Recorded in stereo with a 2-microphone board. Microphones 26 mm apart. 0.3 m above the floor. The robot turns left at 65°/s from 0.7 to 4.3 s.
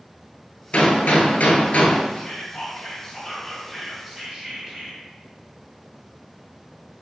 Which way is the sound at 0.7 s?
120° left.